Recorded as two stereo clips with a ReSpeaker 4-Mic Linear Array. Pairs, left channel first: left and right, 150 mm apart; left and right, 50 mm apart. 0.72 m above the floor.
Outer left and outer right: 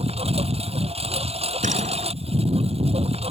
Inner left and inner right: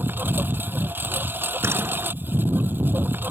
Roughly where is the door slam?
Right.